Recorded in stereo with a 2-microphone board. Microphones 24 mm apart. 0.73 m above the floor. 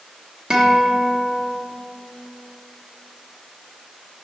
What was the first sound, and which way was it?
A guitar, 40° right (ahead or behind).